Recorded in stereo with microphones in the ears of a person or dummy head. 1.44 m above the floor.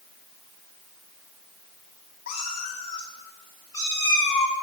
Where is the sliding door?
No sliding door in this recording.